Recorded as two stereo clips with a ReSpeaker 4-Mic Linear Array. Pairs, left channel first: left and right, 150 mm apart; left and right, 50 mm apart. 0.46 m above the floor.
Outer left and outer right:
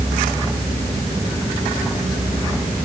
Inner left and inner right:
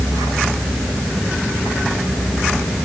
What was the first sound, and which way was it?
Only background noise.